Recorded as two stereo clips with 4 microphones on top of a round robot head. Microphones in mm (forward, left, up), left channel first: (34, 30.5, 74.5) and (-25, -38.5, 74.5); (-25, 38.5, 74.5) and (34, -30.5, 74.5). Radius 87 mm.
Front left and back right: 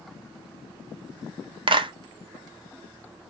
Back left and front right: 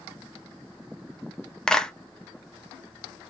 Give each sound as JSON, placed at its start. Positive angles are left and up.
{"t": 1.7, "sound": "a clap", "azimuth_deg": -150, "distance_m": 0.8}